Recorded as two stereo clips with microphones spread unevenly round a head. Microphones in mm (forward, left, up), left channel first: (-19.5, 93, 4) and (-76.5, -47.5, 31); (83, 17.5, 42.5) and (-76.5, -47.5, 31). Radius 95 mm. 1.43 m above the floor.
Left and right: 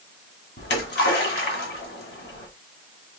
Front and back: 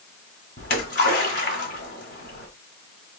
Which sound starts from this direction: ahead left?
A splash, at 0.6 s.